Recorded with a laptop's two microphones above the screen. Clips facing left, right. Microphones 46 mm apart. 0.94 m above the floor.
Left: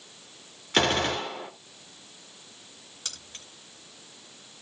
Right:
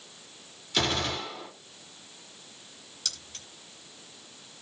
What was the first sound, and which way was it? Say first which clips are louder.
A gunshot: left 4 dB; 50° left (ahead or behind).